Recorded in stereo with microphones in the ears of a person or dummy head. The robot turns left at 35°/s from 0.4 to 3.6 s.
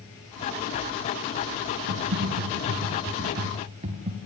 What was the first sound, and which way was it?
Typing on a keyboard, 85° right.